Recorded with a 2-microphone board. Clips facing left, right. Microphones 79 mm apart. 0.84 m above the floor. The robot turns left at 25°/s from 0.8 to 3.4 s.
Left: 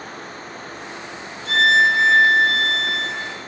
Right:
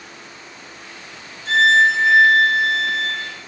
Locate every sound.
1.4 s a violin: 145° right, 1.7 m; by 3.4 s 165° left, 1.7 m